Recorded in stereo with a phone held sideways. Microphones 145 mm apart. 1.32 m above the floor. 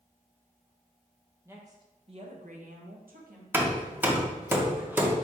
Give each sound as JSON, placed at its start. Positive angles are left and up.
{"t": 1.4, "sound": "a woman speaking", "side_deg": -15, "distance_m": 0.9}
{"t": 3.5, "sound": "hammering", "side_deg": -15, "distance_m": 0.6}